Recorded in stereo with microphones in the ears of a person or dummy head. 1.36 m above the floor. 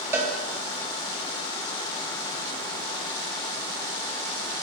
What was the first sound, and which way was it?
A cowbell, 10° right (ahead or behind).